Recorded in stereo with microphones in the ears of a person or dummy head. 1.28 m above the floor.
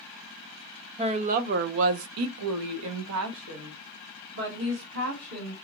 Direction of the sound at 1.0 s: 35° right (ahead or behind).